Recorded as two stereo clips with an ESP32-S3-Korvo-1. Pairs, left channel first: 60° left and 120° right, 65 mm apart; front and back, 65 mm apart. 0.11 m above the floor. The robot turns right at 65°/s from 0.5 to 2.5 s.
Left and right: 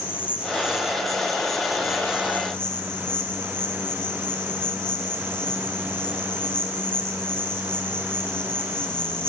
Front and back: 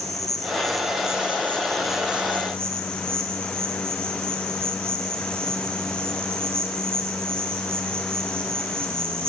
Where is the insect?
5° left, 4.5 m; by 9.3 s 135° left, 4.5 m.